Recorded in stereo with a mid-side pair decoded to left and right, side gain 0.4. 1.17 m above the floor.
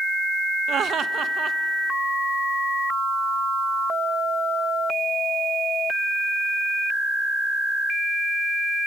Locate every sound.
0.7 s laughter: 65° right, 0.7 m